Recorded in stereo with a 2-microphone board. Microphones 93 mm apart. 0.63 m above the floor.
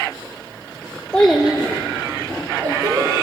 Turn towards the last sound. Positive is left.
turn(degrees=-60)  # may be behind; listen again after turning